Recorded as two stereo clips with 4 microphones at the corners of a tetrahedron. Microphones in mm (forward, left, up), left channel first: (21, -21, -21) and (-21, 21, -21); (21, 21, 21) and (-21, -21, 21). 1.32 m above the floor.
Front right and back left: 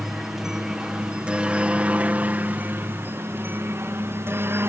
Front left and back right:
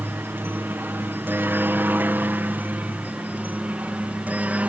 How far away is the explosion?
No explosion in this recording.